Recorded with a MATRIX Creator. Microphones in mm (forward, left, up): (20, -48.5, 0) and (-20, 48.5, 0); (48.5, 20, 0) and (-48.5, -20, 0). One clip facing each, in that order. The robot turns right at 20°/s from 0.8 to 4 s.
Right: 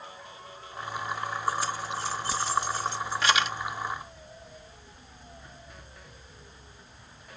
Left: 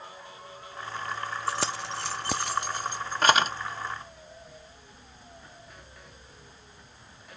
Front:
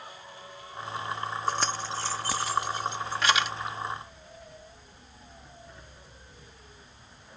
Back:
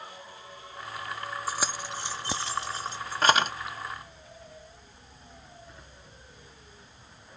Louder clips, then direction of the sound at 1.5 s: Right 1 dB, front 4 dB; 120° left.